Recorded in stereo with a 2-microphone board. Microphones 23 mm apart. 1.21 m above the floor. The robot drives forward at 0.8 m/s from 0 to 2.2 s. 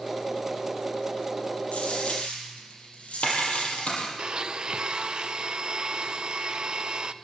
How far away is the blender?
About 0.7 m.